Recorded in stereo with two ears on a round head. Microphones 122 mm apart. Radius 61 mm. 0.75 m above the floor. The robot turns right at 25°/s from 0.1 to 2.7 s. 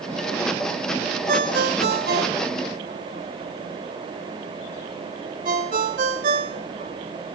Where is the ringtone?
75° right (ahead or behind), 1.7 m; by 6.9 s 70° right (ahead or behind), 1.7 m.